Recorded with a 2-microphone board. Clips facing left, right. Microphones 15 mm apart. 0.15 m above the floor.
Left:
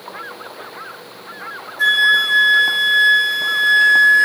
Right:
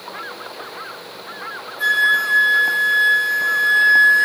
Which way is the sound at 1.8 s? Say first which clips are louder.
Left 3 dB; 40° left (ahead or behind).